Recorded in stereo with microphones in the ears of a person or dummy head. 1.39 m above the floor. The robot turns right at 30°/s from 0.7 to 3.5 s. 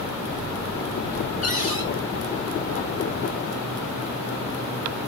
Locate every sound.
1.4 s a cupboard door: centre (ahead or behind), 5 m; by 1.9 s 15° right (ahead or behind), 5 m